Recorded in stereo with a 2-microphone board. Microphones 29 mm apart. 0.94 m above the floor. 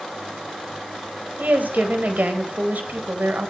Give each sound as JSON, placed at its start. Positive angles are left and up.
{"t": 1.4, "sound": "a woman speaking", "side_deg": -85, "distance_m": 3.5}